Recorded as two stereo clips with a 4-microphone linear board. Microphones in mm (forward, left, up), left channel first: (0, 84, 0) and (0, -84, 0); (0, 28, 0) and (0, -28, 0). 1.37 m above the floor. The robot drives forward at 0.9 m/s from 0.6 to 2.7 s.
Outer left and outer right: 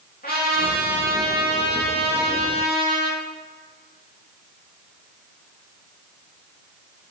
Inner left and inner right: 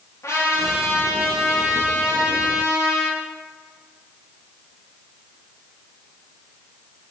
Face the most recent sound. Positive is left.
turn(degrees=75)  # may be behind; listen again after turning